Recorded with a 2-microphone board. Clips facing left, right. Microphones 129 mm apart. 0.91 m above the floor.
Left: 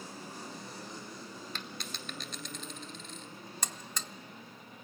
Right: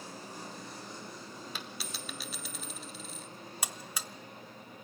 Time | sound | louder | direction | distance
1.6 | a dropped coin | even | 5° right (ahead or behind) | 1.1 m
3.6 | a buzzer | right 1 dB | 10° right (ahead or behind) | 0.5 m